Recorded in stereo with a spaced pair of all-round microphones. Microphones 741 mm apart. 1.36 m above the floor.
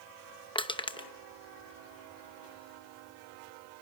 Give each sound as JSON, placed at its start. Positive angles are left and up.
{"t": 0.6, "sound": "crushing", "side_deg": 5, "distance_m": 0.8}